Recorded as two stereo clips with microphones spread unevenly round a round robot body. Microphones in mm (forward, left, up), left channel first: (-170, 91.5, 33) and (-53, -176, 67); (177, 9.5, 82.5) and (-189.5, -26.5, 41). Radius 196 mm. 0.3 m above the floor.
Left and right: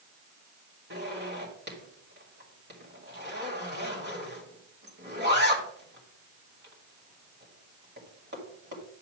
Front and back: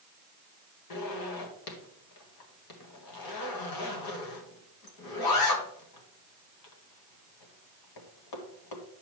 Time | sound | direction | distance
0.9 | a zipper | 10° right | 1.8 m